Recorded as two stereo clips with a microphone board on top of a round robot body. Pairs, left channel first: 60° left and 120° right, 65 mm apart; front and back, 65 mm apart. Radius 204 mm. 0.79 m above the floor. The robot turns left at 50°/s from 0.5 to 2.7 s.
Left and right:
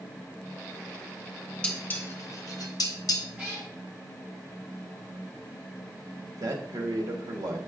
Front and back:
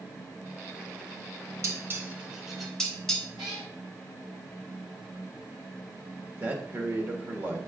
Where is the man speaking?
125° right, 1.6 m.